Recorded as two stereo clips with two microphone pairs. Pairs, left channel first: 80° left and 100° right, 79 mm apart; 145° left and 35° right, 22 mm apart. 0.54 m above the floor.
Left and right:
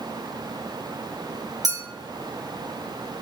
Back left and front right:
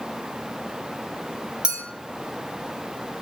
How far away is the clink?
About 1.0 m.